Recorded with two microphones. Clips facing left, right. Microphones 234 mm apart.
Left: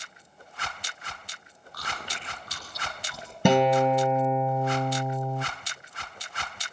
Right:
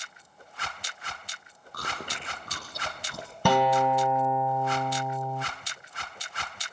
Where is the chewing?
50° right (ahead or behind), 5 m.